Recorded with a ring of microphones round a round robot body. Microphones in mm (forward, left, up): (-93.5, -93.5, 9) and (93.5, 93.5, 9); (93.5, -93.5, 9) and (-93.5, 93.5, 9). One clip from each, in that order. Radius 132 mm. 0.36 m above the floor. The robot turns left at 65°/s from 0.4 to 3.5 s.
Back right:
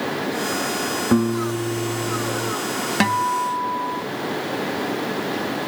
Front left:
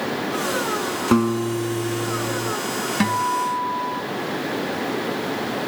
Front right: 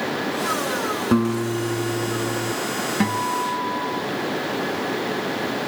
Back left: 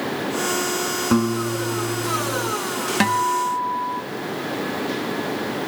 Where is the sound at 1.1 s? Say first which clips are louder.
Front left 3 dB, back left 1 dB; 55° left; by 2.5 s 35° right.